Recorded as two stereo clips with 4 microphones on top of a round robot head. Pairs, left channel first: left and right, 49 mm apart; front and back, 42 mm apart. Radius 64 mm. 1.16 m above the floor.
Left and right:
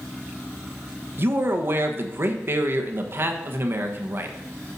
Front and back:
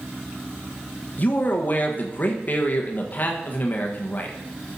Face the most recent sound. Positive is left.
turn(degrees=-50)